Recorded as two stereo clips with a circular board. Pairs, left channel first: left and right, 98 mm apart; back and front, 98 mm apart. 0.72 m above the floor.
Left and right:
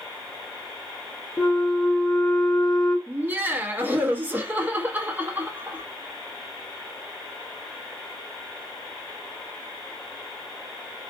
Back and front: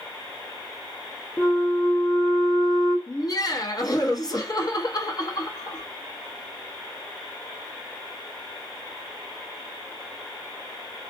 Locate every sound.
1.4 s a flute: 155° left, 0.7 m
3.1 s laughter: 155° right, 0.7 m